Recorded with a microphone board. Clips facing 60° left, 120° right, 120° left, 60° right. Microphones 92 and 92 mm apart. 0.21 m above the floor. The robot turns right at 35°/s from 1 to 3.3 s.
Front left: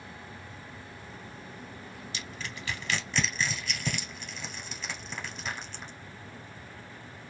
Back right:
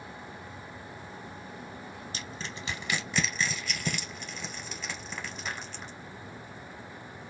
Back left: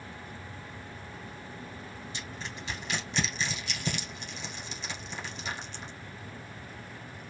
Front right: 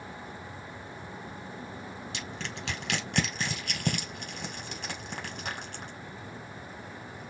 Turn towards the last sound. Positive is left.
turn(degrees=-30)